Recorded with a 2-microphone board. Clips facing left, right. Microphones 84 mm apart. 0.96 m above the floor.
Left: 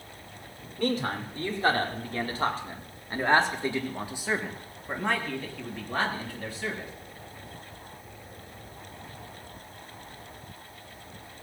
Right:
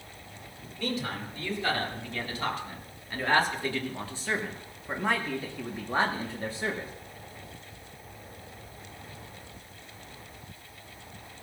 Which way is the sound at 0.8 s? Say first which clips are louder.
Left 5 dB; 50° left (ahead or behind).